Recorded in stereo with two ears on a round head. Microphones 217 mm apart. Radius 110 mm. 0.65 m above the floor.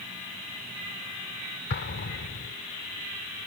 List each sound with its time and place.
1.7 s an explosion: 45° left (ahead or behind)